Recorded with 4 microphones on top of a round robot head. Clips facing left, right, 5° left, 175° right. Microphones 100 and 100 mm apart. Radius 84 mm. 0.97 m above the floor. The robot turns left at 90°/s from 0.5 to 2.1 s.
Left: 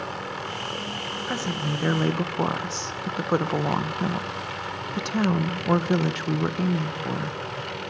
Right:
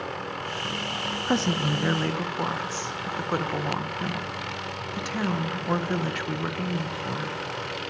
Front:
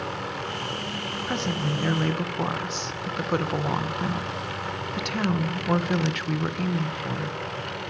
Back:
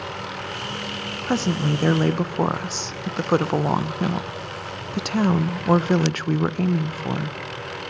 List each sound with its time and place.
1.3 s a woman speaking: 135° right, 0.7 m; by 7.4 s 150° left, 0.7 m